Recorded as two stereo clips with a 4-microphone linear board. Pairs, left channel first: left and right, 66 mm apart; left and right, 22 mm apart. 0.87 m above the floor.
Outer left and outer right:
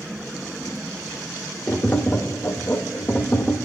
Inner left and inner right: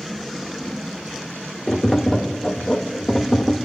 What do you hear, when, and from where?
1.7 s tapping: 35° left (ahead or behind), 0.6 m